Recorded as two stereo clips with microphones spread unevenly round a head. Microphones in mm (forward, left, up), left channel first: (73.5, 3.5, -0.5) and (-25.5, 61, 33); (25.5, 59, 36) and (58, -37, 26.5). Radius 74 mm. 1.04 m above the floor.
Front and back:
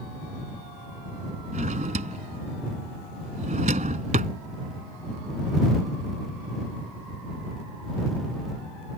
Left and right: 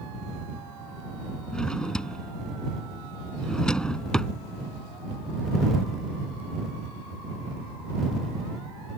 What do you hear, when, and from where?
1.5 s a drawer: 165° right